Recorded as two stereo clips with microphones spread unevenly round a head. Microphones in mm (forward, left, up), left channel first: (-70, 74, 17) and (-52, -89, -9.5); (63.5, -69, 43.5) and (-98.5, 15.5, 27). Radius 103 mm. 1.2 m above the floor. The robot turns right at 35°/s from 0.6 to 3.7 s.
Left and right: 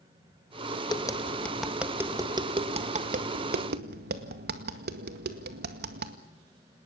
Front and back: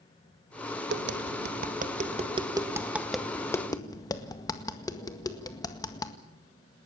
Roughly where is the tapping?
Behind.